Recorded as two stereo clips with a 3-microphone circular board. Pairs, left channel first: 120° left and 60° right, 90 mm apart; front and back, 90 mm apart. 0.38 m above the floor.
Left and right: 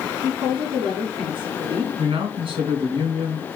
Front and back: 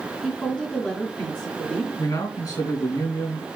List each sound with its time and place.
0.2 s a woman speaking: 80° right, 3.5 m
2.0 s a man speaking: 45° right, 4 m